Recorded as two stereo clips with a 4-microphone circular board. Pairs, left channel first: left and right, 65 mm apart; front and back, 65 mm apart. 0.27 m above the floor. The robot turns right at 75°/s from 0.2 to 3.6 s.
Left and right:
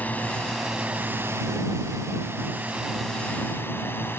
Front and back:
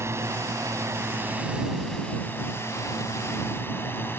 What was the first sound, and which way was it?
A drone, 150° left.